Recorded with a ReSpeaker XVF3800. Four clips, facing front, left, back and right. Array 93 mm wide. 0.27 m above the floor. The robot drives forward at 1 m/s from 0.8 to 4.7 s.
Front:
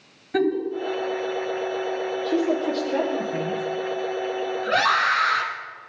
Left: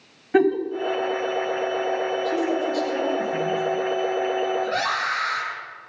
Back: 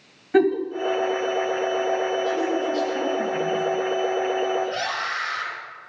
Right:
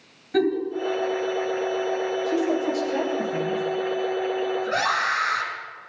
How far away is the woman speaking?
About 7 m.